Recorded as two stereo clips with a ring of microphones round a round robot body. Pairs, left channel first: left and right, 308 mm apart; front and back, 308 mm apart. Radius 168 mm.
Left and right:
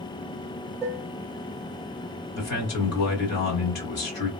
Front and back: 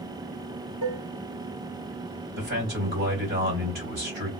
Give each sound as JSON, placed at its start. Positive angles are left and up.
{"t": 0.8, "sound": "dishes clattering", "azimuth_deg": -165, "distance_m": 0.8}
{"t": 2.4, "sound": "a man speaking", "azimuth_deg": 120, "distance_m": 1.7}